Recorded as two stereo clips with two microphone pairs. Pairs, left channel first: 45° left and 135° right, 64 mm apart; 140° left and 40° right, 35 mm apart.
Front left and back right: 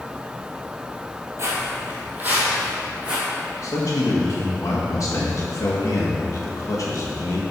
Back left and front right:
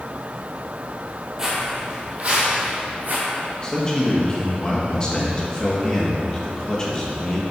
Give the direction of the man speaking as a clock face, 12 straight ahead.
10 o'clock.